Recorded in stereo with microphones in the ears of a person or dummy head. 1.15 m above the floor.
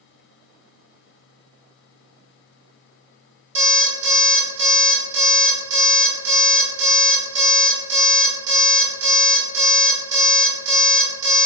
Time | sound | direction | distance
3.5 | an alarm clock | 40° right (ahead or behind) | 1.9 m